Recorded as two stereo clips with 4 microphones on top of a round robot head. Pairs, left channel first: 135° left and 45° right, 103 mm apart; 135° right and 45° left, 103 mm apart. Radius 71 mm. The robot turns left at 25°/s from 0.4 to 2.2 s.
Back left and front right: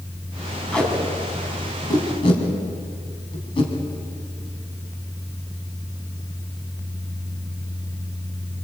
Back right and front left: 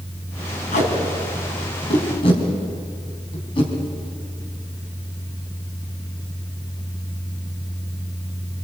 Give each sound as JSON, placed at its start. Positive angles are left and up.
{"t": 0.7, "sound": "tape being pulled", "azimuth_deg": -140, "distance_m": 4.5}